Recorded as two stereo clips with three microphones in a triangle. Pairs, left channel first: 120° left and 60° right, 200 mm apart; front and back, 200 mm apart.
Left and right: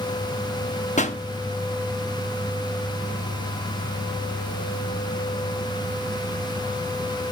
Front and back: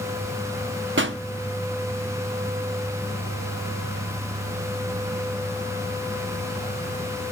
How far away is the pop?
About 0.9 m.